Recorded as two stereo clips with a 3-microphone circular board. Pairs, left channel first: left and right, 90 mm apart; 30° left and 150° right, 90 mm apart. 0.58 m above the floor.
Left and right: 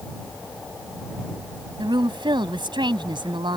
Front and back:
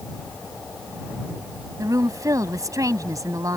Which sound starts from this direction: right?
A woman speaking, at 1.8 s.